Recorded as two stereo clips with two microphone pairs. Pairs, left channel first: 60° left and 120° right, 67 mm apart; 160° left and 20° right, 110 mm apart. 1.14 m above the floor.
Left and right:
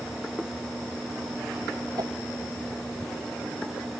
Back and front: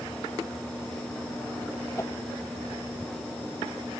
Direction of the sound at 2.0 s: 135° right.